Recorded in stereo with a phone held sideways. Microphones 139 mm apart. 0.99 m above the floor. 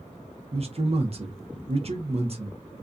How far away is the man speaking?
About 0.6 m.